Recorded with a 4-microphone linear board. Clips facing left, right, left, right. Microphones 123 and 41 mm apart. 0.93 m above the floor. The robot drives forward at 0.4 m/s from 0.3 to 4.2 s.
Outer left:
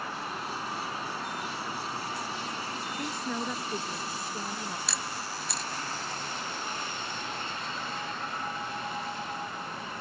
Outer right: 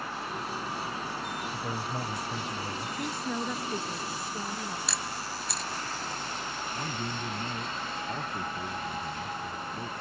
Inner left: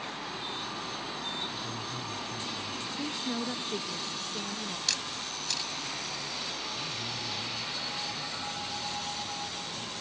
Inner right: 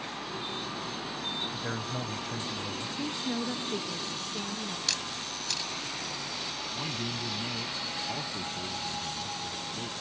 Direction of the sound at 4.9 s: Centre (ahead or behind).